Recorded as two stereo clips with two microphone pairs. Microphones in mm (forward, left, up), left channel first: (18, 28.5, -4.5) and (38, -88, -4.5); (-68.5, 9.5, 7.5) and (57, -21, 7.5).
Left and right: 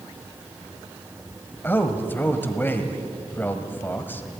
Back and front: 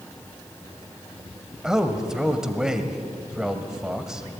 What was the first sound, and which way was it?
A man speaking, 60° left.